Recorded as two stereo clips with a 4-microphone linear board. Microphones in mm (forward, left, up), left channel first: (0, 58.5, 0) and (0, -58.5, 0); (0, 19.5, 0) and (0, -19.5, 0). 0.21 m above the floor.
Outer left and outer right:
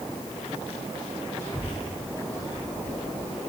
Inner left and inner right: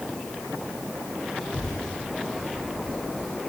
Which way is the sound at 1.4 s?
25° left (ahead or behind).